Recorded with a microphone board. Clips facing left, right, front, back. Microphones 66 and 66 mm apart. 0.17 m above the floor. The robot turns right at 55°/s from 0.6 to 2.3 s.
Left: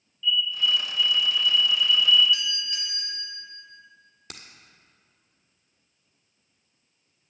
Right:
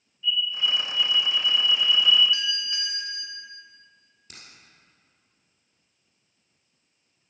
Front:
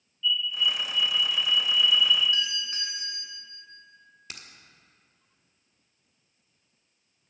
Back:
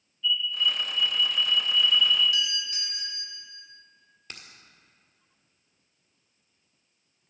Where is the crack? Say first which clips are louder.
Left 3 dB, even; 85° left, 1.5 m.